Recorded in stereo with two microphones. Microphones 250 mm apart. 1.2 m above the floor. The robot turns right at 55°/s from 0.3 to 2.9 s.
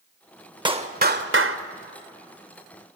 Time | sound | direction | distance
0.7 | a clap | 160° right | 1.0 m